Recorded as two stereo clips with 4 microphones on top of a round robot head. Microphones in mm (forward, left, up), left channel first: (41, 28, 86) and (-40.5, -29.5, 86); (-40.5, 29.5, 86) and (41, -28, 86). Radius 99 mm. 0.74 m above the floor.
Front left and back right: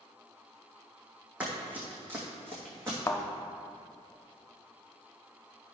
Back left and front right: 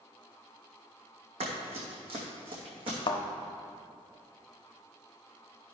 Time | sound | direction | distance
1.4 | running footsteps | 65° right | 1.9 m
3.1 | a thud | 105° left | 0.6 m